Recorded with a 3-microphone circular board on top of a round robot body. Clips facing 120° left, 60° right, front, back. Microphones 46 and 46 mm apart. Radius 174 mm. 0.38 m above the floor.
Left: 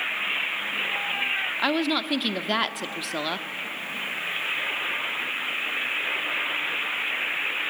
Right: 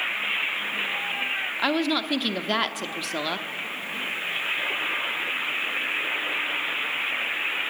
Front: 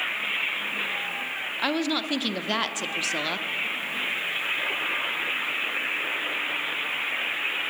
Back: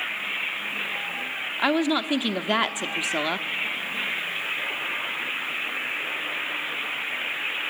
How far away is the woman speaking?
About 0.9 m.